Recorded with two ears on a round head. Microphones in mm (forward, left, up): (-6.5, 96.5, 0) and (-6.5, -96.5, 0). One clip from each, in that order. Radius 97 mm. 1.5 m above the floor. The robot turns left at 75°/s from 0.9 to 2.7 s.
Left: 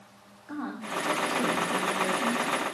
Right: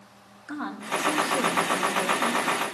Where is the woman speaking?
75° right, 2.0 m; by 2.6 s 155° left, 2.0 m.